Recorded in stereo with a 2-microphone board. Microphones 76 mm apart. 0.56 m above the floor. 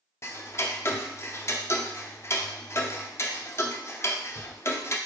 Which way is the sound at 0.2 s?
35° left (ahead or behind).